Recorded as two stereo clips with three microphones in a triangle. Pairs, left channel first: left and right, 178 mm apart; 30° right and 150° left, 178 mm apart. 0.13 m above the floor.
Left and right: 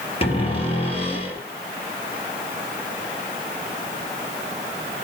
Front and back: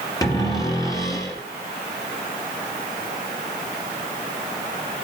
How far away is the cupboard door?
About 3.5 m.